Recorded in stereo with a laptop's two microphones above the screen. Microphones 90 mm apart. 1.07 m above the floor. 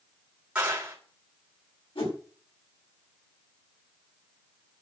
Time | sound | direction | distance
0.6 | a clap | 15° right (ahead or behind) | 3 m
1.9 | a whoosh | 85° left | 5.5 m